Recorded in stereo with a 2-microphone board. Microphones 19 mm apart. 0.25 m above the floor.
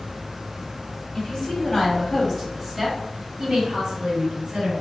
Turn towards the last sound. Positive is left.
turn(degrees=-45)  # may be behind; listen again after turning